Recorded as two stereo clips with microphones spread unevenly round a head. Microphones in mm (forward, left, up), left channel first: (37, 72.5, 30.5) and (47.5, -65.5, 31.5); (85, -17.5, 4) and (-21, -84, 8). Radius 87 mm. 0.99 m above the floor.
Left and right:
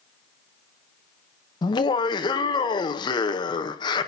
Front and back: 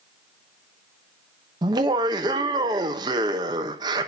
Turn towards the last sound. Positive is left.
turn(degrees=150)